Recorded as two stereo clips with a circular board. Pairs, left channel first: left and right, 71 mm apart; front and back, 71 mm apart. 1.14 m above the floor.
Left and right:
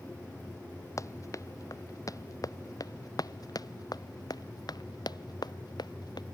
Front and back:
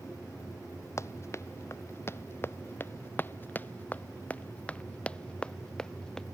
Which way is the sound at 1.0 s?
50° left.